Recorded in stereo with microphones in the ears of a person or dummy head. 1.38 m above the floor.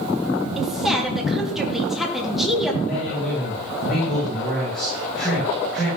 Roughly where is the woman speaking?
Centre.